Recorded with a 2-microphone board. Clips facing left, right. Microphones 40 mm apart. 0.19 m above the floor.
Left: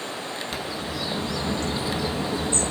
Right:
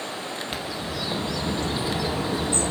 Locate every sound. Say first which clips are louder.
0.5 s a bird: even; 25° right (ahead or behind), 3.5 m